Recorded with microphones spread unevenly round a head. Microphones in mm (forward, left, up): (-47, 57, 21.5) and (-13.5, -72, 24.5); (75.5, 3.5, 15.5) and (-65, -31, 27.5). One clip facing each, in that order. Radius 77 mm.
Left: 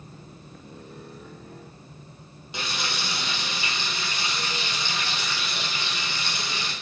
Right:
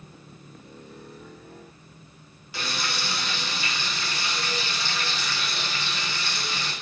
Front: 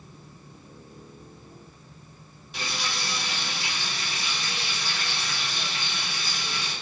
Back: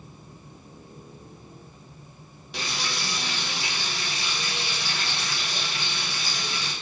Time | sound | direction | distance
2.5 | frying | 170° left | 1.6 m